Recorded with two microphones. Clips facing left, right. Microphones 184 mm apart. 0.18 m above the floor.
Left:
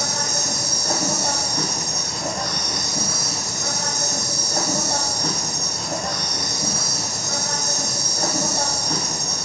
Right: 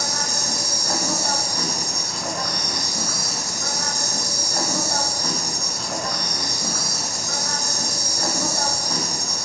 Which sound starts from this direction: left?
An insect, at 0.0 s.